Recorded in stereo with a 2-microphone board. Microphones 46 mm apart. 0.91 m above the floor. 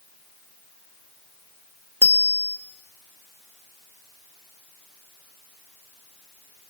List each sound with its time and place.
2.0 s a bicycle bell: 70° left (ahead or behind), 2 m